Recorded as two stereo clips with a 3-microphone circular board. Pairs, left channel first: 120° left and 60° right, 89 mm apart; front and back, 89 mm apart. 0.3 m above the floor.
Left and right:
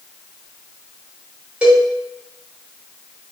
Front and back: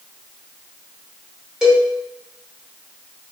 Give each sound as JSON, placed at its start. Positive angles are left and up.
{"t": 1.6, "sound": "a cowbell", "azimuth_deg": -110, "distance_m": 1.4}